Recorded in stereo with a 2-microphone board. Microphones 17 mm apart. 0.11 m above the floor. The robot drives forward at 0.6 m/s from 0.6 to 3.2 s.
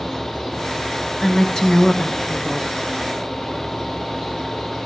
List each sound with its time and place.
1.2 s a woman speaking: 35° left (ahead or behind), 1.2 m; by 2.7 s 25° left (ahead or behind), 1.6 m